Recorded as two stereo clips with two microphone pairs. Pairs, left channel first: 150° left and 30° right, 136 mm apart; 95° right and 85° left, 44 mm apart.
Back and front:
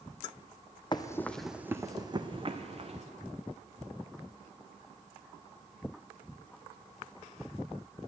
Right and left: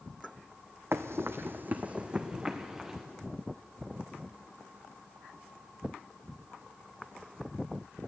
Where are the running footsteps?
95° left, 0.8 m; by 3.0 s 10° left, 1.8 m.